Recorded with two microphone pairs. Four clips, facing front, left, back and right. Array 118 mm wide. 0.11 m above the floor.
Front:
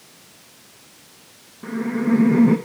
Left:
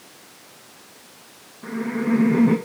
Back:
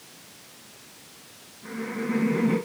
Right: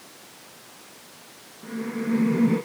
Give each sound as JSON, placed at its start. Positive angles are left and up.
{"t": 1.6, "sound": "laughter", "azimuth_deg": 35, "distance_m": 5.0}